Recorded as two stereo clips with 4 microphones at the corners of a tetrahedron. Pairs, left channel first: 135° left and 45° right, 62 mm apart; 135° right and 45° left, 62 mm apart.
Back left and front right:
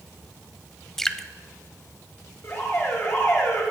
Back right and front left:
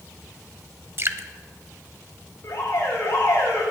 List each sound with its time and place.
1.0 s dripping: 55° left, 0.5 m
2.4 s an alarm: straight behind, 7.5 m